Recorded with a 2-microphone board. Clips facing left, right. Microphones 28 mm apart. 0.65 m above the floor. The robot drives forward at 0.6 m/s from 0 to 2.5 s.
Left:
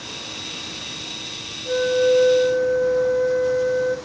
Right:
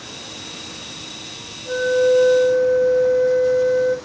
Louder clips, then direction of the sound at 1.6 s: Right 1 dB; 20° right (ahead or behind).